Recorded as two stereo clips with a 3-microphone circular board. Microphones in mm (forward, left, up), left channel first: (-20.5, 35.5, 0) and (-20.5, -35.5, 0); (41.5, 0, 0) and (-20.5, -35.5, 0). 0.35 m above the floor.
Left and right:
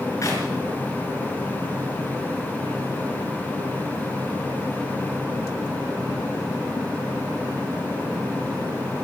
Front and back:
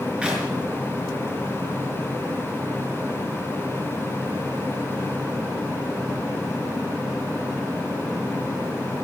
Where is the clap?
135° left, 5 m.